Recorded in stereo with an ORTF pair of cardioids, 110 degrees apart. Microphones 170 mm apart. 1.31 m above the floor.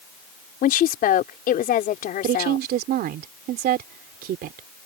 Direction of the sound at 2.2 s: 65° right.